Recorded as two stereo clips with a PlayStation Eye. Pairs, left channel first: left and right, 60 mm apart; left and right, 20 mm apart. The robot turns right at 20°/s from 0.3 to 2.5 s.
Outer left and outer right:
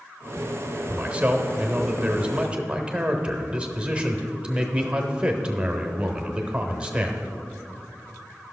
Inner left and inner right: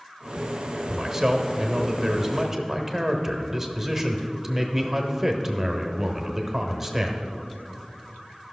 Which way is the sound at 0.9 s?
20° right (ahead or behind).